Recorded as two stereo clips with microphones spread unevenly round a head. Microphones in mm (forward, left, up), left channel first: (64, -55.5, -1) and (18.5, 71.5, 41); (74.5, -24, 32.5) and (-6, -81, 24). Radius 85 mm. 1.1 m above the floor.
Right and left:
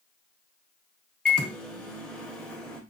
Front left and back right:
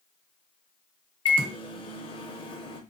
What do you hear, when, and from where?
1.2 s a microwave: 5° left, 0.8 m